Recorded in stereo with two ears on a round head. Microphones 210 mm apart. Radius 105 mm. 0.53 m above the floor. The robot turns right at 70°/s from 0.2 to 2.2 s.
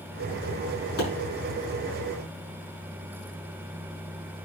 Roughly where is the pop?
Left.